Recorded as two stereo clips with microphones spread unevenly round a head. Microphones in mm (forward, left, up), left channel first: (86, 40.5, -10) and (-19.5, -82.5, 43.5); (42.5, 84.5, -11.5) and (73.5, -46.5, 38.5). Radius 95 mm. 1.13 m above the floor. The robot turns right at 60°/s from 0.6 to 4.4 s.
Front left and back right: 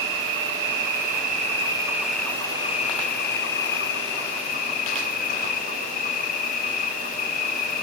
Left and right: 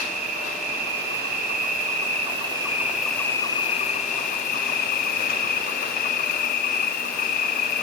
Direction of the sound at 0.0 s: 130° right.